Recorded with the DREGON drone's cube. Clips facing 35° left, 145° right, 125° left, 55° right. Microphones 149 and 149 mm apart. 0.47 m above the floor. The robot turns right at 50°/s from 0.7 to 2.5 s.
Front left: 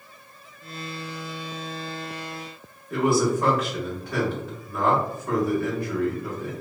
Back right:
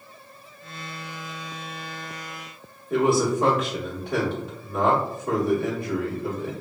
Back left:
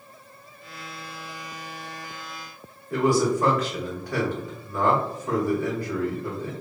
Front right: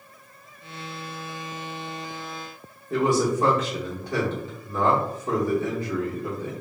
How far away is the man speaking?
About 0.8 m.